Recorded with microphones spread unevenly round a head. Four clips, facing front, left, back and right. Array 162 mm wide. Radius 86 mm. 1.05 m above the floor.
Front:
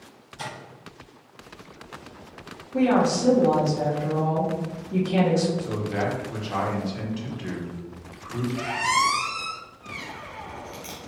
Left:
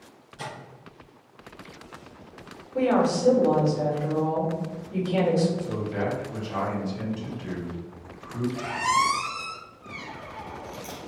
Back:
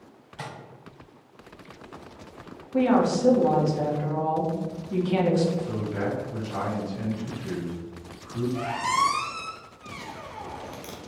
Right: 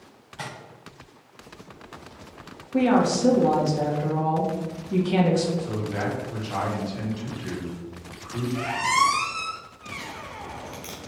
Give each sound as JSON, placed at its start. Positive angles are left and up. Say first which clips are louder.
{"t": 0.4, "sound": "tapping", "louder": "even, front 2 dB", "azimuth_deg": -140, "distance_m": 1.8}
{"t": 2.7, "sound": "a woman speaking", "louder": "right 2 dB, front 1 dB", "azimuth_deg": -95, "distance_m": 1.6}
{"t": 5.6, "sound": "a man speaking", "louder": "even, front 2 dB", "azimuth_deg": -25, "distance_m": 1.7}
{"t": 8.6, "sound": "a squeak", "louder": "right 2 dB, front 2 dB", "azimuth_deg": -160, "distance_m": 0.7}